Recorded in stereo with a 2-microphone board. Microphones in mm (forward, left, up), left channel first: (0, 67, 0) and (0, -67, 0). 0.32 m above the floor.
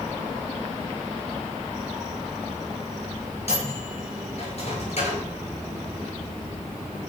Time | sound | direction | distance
3.5 | a microwave | 55° left (ahead or behind) | 6 m